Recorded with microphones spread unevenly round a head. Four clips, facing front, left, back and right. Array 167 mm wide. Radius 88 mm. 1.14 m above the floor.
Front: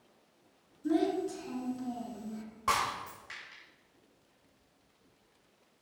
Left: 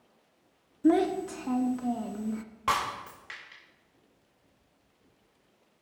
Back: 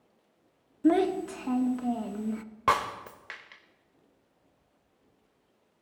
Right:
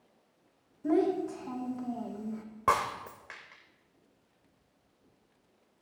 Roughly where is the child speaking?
Behind left.